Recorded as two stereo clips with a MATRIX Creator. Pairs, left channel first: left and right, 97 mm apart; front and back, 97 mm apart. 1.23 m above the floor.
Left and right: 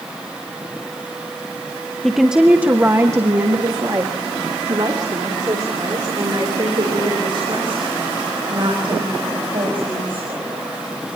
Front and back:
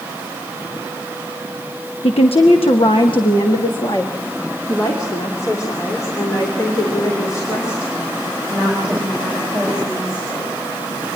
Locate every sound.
2.0 s a woman speaking: 5° left, 0.9 m; by 10.7 s 65° right, 5.5 m